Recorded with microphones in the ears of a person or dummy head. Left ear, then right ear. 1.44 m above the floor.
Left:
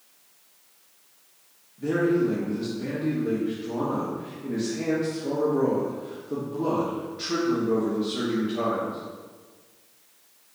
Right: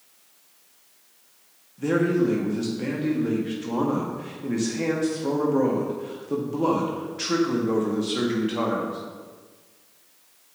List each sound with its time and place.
1.8 s a man speaking: 40° right (ahead or behind), 1.1 m